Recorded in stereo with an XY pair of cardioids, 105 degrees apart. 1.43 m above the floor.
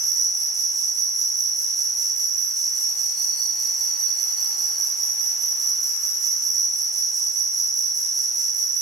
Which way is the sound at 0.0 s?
70° right.